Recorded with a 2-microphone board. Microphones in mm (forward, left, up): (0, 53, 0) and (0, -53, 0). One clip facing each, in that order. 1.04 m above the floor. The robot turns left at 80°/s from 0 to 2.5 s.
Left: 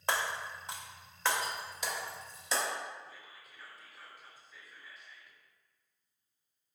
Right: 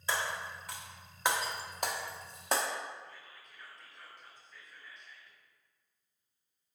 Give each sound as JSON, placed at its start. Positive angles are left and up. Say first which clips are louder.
{"t": 0.1, "sound": "breaking glass", "louder": "left 1 dB", "side_deg": 60, "distance_m": 0.6}
{"t": 3.0, "sound": "whispering", "louder": "even", "side_deg": 5, "distance_m": 0.8}